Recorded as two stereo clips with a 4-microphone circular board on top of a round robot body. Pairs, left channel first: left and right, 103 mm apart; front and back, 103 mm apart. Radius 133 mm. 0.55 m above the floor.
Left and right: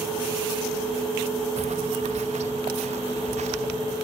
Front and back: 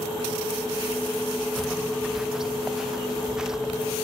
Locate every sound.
1.6 s footsteps: 95° right